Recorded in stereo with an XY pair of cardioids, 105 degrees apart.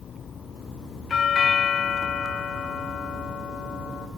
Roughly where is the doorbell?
Ahead left.